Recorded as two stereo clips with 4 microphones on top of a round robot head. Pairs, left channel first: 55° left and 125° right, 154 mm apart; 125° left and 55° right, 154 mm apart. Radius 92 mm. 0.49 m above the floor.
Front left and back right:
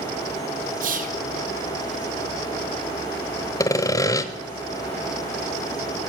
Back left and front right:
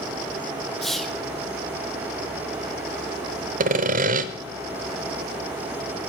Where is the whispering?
145° right, 1.8 m.